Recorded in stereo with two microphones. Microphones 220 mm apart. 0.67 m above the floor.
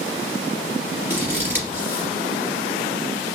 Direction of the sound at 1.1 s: 10° right (ahead or behind).